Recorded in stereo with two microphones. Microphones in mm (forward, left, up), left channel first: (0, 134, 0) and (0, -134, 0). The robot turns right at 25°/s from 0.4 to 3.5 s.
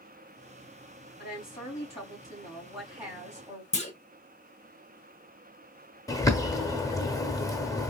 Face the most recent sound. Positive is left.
turn(degrees=10)  # may be behind; listen again after turning